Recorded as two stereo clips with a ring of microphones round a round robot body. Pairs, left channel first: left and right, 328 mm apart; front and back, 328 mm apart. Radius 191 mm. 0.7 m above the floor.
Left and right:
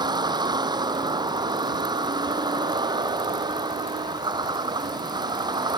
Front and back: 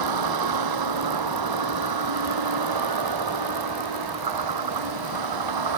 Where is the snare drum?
No snare drum in this recording.